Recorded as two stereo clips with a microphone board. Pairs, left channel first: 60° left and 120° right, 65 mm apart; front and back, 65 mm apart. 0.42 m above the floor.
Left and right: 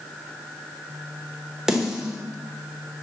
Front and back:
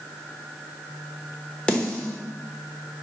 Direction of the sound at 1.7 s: 50° right.